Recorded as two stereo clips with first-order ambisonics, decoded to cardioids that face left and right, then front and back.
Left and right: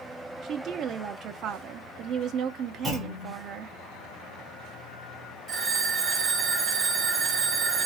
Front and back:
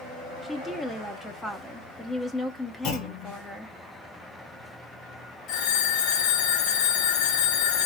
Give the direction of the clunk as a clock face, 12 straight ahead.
12 o'clock.